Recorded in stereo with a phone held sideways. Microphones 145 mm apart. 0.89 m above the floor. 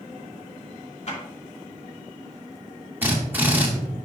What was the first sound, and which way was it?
A clap, 50° left (ahead or behind).